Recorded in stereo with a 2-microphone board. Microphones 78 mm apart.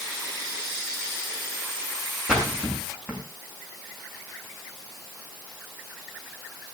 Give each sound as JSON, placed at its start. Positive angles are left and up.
{"t": 2.3, "sound": "a splash", "side_deg": -10, "distance_m": 7.5}